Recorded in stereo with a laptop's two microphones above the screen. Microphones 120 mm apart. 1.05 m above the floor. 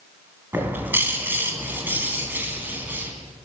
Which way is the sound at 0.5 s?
15° right (ahead or behind).